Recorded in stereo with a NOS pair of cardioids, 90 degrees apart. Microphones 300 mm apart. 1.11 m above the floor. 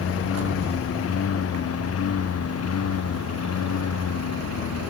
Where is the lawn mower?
50° left; by 4.9 s 55° left.